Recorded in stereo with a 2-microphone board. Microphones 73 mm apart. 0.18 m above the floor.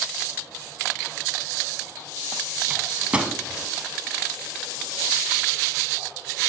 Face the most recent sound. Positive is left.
turn(degrees=-15)  # may be behind; listen again after turning